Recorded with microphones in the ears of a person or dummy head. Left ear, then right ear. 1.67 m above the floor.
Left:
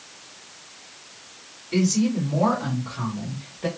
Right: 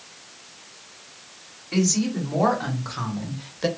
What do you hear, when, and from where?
1.7 s a woman speaking: 45° right (ahead or behind), 1.7 m; by 3.7 s 80° right, 0.9 m